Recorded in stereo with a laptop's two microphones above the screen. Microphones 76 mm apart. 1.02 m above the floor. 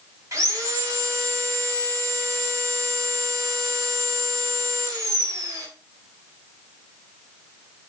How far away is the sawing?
About 4 m.